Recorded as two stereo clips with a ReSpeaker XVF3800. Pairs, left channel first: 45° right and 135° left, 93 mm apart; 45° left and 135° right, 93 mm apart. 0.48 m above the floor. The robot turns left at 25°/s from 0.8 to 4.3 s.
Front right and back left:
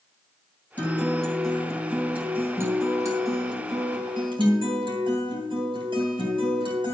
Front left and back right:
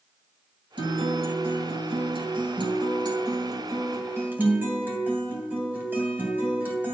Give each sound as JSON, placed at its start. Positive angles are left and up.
{"t": 0.8, "sound": "a guitar", "azimuth_deg": -115, "distance_m": 3.0}